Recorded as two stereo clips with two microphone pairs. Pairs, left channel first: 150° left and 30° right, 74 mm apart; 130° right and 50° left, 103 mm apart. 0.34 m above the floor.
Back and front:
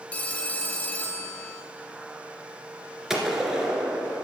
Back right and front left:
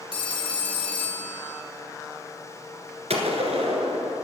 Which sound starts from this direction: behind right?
A phone ringing, at 0.1 s.